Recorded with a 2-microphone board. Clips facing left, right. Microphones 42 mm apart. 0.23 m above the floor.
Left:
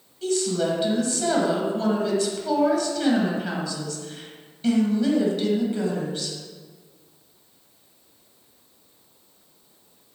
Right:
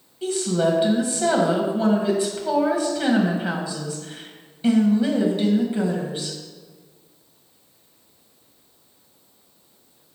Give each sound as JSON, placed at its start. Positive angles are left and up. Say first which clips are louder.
{"t": 0.2, "sound": "a woman speaking", "louder": "right 2 dB", "side_deg": -20, "distance_m": 1.5}